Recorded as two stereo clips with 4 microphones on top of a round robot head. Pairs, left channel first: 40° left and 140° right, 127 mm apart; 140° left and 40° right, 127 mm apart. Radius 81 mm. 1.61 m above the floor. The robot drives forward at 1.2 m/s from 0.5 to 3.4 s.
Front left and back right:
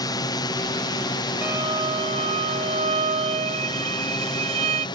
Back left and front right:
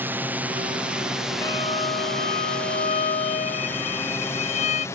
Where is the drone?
20° left; by 5.0 s 80° left.